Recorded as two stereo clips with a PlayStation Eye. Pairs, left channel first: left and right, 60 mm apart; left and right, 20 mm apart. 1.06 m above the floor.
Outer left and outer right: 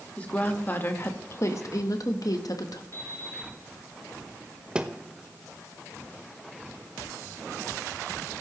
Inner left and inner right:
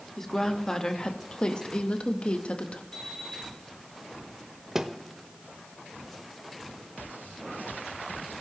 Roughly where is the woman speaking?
Left.